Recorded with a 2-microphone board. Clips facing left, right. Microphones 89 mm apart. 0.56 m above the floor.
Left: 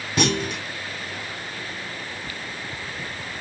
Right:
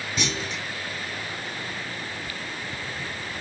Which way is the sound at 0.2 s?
60° left (ahead or behind).